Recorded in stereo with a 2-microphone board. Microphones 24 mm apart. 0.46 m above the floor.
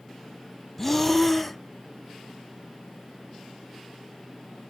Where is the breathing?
5° left (ahead or behind), 1.2 m.